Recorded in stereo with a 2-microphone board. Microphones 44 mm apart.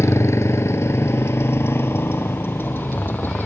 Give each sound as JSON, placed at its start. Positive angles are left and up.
{"t": 0.0, "sound": "a motorcycle", "side_deg": 85}